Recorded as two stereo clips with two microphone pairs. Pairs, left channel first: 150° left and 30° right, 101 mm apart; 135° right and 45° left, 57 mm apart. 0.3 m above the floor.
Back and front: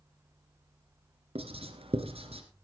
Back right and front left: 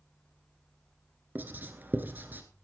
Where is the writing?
15° right, 1.8 m.